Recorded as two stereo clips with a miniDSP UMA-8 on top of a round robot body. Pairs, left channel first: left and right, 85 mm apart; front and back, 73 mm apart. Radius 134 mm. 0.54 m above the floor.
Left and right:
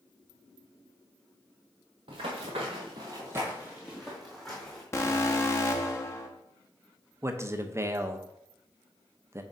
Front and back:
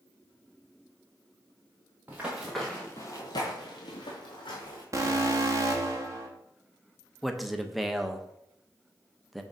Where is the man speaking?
90° right, 0.9 m.